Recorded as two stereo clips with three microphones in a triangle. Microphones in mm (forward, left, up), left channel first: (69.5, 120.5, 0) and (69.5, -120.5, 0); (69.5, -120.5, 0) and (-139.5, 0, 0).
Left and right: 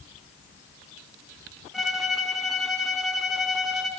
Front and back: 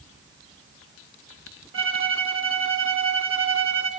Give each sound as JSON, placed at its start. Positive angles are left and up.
{"t": 1.7, "sound": "a violin", "azimuth_deg": 180, "distance_m": 0.5}